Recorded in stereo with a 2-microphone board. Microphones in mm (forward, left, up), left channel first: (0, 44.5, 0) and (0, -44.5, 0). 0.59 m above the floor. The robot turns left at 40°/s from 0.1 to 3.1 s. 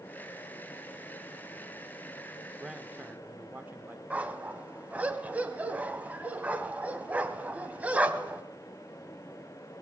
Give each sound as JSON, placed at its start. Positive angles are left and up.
{"t": 2.6, "sound": "a man speaking", "side_deg": -5, "distance_m": 1.3}
{"t": 4.1, "sound": "a dog barking", "side_deg": -15, "distance_m": 1.7}